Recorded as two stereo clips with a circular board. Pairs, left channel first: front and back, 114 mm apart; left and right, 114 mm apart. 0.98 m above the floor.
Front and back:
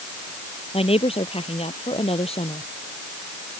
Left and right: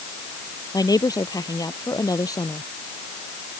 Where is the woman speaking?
35° left; by 2.6 s 30° left.